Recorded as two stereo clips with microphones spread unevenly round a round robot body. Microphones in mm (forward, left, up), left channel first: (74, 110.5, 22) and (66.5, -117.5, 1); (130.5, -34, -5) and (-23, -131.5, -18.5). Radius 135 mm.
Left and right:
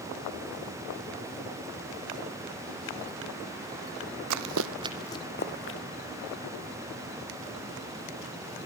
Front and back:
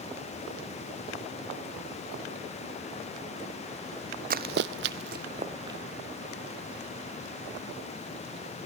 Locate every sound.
4.3 s running footsteps: 105° right, 0.9 m; by 5.8 s 135° left, 1.5 m